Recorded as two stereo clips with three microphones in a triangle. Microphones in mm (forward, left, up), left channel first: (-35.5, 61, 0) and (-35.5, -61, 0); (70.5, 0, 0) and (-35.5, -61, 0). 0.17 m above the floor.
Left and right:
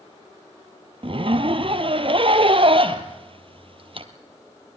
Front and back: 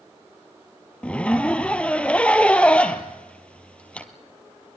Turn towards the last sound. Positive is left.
turn(degrees=-50)